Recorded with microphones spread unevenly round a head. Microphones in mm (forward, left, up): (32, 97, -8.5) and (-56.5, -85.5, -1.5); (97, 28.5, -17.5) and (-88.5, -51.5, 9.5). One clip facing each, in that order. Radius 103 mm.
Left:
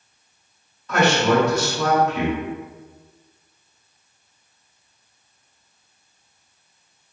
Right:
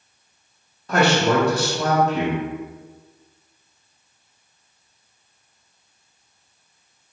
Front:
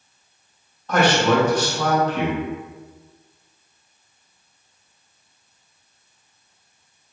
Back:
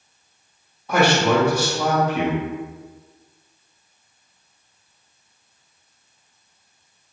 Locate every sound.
0.9 s a man speaking: 70° right, 0.9 m